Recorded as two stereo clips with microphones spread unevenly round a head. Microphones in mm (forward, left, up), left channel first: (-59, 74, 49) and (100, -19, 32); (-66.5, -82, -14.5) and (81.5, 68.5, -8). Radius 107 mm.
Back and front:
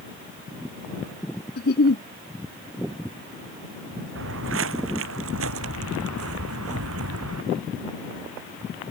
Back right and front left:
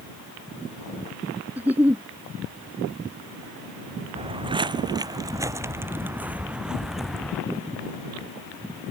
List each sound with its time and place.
1.6 s a giggle: 125° left
4.2 s footsteps: 20° right; by 7.4 s 45° right